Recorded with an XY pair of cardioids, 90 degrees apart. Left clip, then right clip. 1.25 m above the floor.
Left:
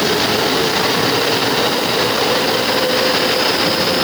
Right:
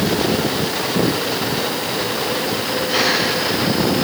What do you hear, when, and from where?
Only background noise.